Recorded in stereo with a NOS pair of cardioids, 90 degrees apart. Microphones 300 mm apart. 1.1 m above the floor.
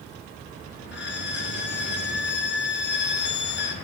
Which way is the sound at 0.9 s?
40° left.